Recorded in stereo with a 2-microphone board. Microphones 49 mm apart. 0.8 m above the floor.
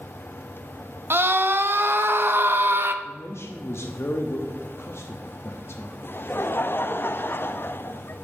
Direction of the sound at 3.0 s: 60° left (ahead or behind).